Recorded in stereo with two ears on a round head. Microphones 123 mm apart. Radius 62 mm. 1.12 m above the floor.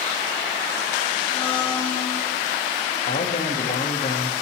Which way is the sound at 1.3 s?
40° left (ahead or behind).